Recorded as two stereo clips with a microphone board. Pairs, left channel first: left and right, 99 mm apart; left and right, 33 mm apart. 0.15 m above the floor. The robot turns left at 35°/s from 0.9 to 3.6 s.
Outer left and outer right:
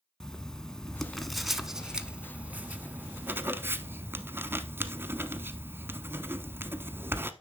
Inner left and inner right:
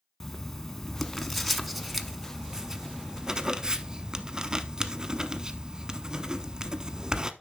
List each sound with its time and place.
0.2 s writing: 5° left (ahead or behind), 0.7 m; by 7.3 s 25° right (ahead or behind), 0.7 m